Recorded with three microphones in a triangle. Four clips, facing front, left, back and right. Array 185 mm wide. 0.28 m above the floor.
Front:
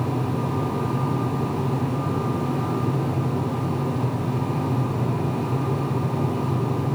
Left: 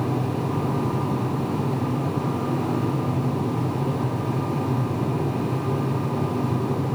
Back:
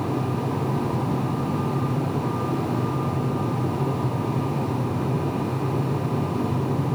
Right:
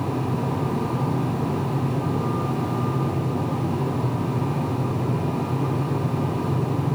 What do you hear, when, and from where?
Only background noise.